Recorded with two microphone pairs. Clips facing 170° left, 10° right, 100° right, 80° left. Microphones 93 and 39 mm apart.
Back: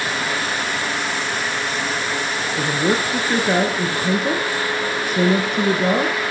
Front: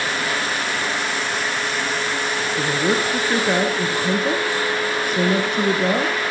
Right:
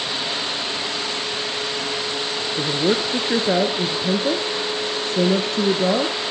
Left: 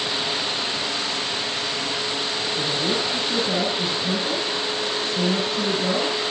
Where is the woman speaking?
100° right, 1.8 m.